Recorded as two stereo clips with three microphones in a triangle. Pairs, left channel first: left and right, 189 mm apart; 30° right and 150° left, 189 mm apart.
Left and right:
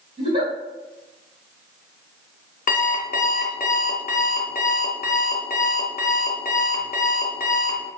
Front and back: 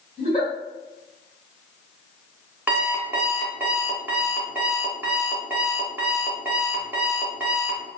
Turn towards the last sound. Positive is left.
turn(degrees=70)